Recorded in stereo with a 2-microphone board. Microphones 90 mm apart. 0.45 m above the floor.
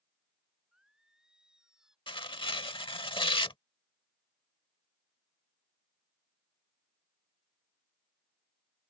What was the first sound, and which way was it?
Singing, 5° right (ahead or behind).